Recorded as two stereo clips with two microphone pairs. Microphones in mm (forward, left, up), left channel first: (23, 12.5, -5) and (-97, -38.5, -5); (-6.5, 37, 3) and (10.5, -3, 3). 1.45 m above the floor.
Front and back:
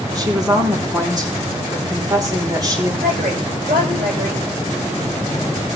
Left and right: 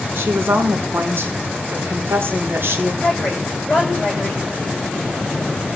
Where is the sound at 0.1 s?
95° right, 4 m.